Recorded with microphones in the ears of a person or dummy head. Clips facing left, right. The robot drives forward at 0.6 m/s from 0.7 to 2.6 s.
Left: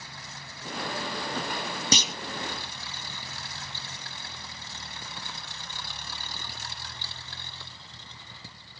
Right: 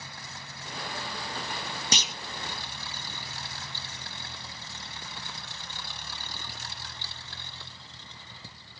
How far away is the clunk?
About 0.6 m.